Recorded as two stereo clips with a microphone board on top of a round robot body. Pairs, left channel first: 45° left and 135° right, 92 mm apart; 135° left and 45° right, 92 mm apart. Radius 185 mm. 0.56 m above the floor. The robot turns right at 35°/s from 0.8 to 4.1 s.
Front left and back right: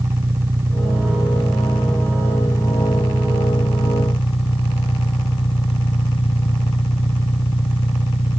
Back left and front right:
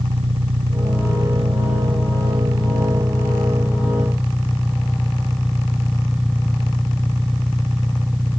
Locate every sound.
0.0 s an engine running: 70° right; by 8.4 s 45° left